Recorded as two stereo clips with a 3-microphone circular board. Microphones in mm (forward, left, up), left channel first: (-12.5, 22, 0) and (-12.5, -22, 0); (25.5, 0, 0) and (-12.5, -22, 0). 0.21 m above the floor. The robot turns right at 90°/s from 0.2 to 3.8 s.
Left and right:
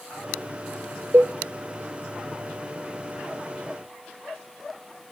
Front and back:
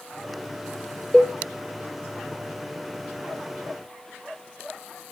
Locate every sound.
1.1 s a cowbell: 45° right, 1.1 m; by 1.4 s 25° right, 1.1 m